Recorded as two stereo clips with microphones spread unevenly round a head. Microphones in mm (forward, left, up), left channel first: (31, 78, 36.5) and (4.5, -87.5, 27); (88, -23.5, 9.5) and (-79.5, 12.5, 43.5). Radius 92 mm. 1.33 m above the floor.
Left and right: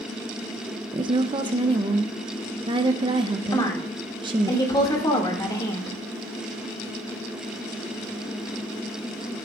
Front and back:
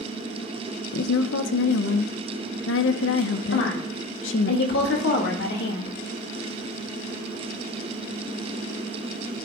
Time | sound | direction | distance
0.9 | a woman speaking | 35° right | 0.6 m
3.5 | a woman speaking | 10° left | 2 m